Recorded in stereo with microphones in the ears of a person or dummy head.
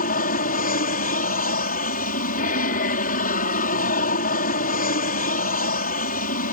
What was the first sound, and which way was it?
An aircraft, 45° left (ahead or behind).